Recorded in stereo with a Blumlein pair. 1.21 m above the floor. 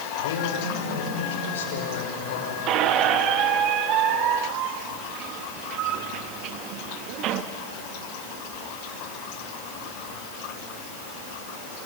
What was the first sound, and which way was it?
A man speaking, 60° left.